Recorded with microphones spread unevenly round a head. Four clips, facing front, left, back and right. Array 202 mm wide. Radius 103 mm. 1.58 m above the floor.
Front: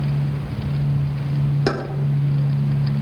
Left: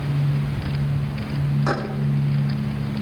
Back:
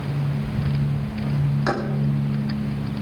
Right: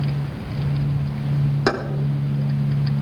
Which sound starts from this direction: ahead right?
Keys jangling, at 1.7 s.